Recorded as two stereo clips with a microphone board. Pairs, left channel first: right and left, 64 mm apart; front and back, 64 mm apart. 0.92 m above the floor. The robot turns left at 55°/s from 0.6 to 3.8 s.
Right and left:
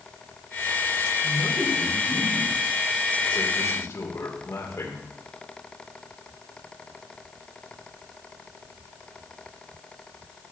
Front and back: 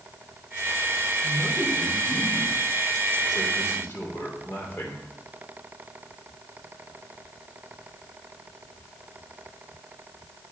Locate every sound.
1.2 s a man speaking: 90° left, 3 m; by 5.1 s 50° right, 3 m